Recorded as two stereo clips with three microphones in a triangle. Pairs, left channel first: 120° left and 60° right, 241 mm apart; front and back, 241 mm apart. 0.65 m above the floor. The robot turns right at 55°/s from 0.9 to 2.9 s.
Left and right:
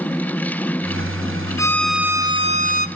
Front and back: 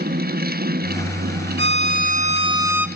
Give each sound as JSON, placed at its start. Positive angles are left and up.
{"t": 1.6, "sound": "a violin", "azimuth_deg": -170, "distance_m": 0.9}